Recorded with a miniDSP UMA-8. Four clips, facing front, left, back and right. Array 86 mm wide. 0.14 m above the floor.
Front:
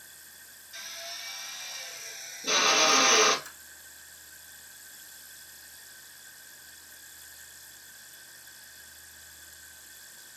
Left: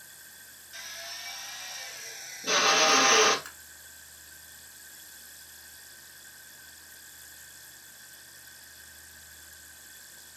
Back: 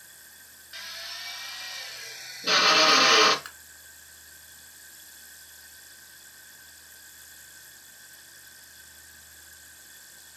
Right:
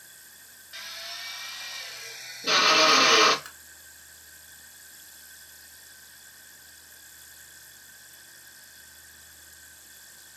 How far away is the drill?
About 0.9 m.